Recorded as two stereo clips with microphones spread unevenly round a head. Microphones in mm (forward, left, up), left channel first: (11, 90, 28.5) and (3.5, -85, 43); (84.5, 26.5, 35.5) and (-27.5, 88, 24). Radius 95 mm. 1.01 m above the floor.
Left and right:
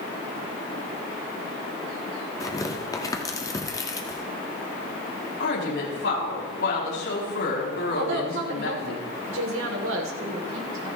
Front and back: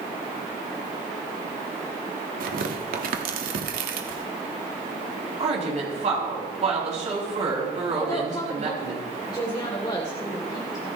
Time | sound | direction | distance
2.4 | tearing paper | 160° left | 1.5 m
5.4 | a woman speaking | 120° left | 7 m
8.0 | a woman speaking | 95° right | 3 m